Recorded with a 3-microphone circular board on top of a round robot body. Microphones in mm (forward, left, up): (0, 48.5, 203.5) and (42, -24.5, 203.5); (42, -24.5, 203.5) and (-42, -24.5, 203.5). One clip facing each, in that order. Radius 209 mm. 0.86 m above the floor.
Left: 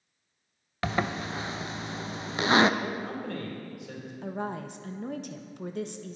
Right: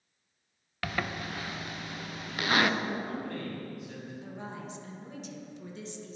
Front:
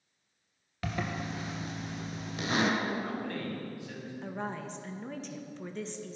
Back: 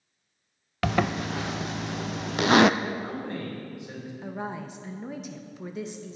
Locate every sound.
0.8 s a zipper: 175° right, 0.6 m
2.8 s a man speaking: 110° left, 4.5 m
4.2 s a woman speaking: 100° left, 1.3 m